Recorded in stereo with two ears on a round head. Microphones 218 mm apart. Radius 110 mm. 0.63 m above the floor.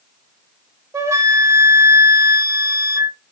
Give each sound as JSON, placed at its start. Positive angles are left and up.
{"t": 0.9, "sound": "a flute", "side_deg": -15, "distance_m": 0.6}